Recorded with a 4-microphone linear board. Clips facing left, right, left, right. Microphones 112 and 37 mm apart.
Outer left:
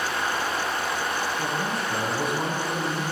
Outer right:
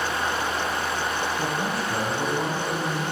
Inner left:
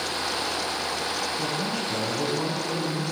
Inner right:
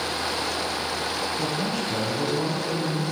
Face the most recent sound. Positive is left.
turn(degrees=15)  # may be behind; listen again after turning